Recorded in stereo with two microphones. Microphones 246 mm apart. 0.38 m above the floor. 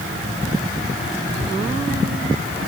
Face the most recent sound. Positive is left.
No sound to turn to.